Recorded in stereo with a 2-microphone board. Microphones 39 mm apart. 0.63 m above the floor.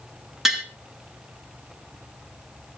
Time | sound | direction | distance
0.5 | tapping | 5° right (ahead or behind) | 2.5 m